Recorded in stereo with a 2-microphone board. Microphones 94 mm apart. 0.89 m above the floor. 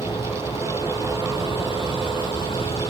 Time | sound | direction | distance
0.0 | a vehicle | 65° left (ahead or behind) | ?